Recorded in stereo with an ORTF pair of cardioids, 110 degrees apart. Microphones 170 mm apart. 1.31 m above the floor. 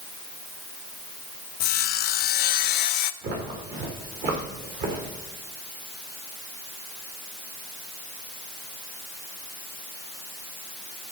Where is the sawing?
65° left, 0.6 m.